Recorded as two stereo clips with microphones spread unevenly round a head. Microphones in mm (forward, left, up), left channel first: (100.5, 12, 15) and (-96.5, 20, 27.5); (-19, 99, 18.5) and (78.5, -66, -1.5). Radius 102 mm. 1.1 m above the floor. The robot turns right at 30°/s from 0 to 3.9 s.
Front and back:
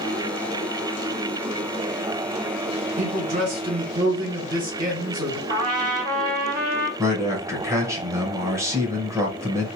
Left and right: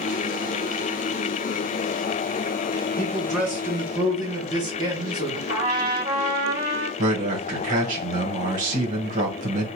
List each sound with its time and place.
3.0 s a man speaking: 155° right, 1.6 m; by 5.4 s 130° right, 1.6 m
5.5 s a trumpet: 130° right, 1.5 m
7.0 s a man speaking: 105° right, 1.1 m